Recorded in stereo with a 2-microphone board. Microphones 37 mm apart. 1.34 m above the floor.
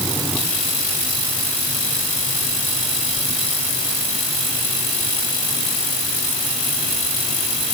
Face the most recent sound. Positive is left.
No sound to turn to.